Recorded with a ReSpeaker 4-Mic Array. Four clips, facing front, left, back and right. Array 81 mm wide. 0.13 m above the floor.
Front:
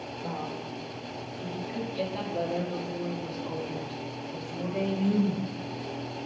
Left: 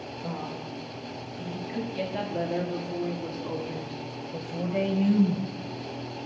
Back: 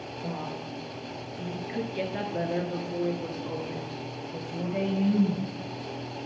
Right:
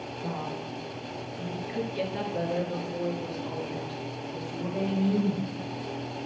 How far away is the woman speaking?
About 2.5 m.